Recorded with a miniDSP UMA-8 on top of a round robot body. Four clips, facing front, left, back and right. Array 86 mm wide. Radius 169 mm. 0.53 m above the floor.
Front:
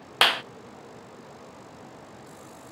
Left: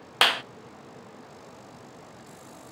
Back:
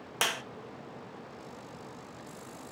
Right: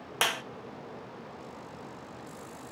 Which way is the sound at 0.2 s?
40° left.